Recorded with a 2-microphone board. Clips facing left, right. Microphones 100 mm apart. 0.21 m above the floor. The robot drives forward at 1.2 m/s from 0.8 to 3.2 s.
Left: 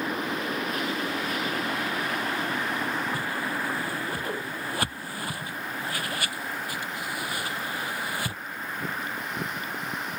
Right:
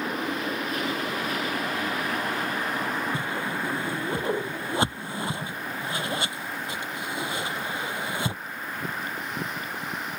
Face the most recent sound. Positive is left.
turn(degrees=-20)  # may be behind; listen again after turning